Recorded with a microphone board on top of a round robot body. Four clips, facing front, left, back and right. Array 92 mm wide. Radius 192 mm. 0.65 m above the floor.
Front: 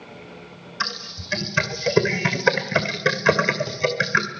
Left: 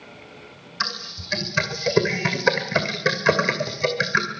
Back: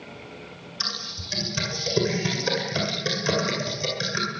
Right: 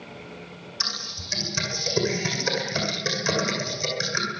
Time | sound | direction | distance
0.8 | typing on a keyboard | 40° left | 2.5 m